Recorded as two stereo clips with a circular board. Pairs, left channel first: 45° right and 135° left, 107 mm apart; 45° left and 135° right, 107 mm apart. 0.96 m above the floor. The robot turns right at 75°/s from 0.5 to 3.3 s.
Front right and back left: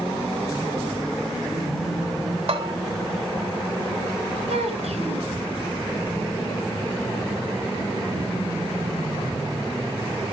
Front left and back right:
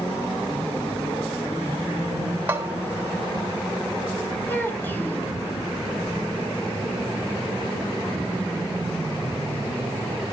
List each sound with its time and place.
2.5 s a bell: 155° left, 3 m; by 2.8 s 175° left, 3 m
4.5 s a child speaking: 115° left, 3.5 m